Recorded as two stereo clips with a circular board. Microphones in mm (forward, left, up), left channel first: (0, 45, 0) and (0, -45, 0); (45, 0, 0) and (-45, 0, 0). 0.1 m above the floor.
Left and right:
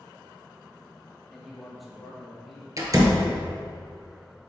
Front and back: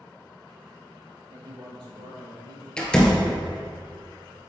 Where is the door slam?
75° right, 1.4 m.